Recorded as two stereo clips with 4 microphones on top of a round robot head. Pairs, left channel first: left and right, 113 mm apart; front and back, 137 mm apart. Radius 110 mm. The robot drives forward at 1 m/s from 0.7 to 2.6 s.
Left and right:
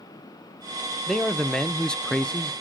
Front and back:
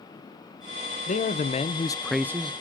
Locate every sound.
1.1 s a man speaking: 5° left, 1.2 m; by 2.5 s 170° left, 0.7 m